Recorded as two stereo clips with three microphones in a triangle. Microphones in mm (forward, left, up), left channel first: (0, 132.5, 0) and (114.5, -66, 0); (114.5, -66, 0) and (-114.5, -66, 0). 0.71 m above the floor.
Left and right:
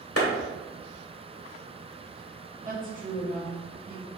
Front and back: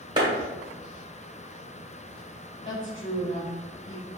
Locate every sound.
0.2 s a clap: 110° left, 1.8 m
2.6 s a woman speaking: 15° right, 1.6 m